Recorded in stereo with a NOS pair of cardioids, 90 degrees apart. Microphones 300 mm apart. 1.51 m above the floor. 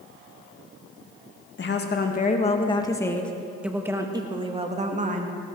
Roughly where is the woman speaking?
Ahead left.